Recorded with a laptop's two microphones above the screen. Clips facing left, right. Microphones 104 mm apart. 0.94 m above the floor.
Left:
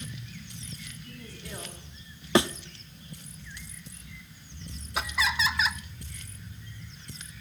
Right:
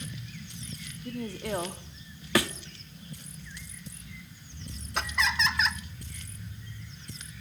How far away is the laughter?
About 0.9 m.